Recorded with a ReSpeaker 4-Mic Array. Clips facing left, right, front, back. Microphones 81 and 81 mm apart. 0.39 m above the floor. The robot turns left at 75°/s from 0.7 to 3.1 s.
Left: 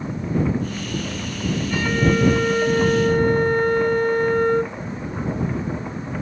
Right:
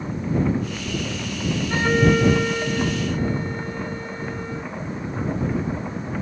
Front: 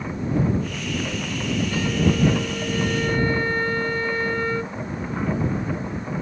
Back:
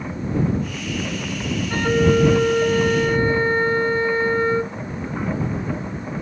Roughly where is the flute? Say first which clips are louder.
Right 2 dB, back 7 dB; behind right.